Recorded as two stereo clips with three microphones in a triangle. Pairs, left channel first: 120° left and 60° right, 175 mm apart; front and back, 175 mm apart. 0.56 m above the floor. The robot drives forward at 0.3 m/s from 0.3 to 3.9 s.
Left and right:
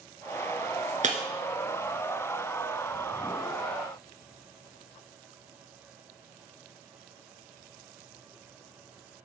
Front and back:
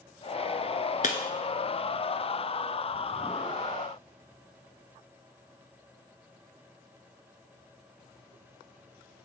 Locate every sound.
1.0 s breaking glass: 25° right, 1.1 m